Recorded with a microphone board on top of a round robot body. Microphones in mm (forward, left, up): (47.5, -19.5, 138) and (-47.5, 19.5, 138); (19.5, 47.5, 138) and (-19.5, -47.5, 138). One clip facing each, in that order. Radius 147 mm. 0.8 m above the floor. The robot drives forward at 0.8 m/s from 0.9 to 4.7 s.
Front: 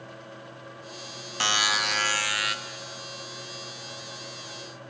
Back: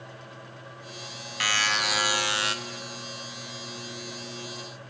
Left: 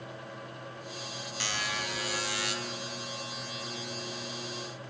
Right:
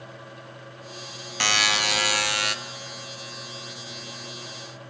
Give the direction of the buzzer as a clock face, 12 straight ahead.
3 o'clock.